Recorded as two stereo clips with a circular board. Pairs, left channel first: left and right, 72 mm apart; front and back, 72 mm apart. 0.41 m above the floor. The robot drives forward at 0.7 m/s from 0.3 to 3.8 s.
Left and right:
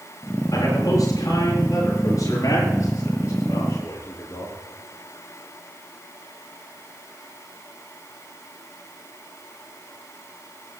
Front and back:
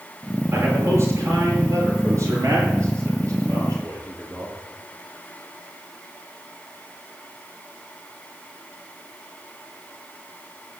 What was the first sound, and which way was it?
A man speaking, 125° left.